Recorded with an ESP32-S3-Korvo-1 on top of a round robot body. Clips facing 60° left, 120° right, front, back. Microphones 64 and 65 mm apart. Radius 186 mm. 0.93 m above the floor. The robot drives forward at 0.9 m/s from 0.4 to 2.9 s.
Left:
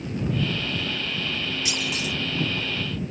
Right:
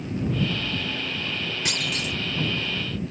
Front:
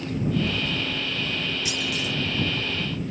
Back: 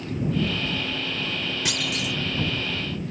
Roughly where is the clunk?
Behind right.